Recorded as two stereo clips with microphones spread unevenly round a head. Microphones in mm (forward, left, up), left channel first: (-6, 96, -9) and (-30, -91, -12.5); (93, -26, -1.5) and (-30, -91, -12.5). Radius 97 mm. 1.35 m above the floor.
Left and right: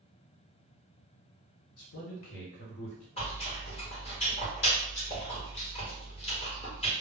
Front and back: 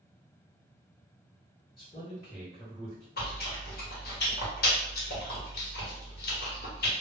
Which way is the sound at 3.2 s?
20° left.